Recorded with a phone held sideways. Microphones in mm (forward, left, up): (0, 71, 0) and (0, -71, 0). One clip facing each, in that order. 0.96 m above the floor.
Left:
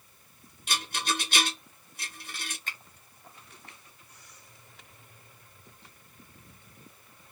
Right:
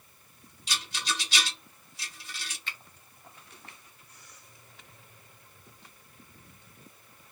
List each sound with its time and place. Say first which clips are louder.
0.7 s a rattle: left 4 dB; 55° left (ahead or behind), 0.7 m
2.7 s a finger snap: left 1 dB; 45° left (ahead or behind), 0.9 m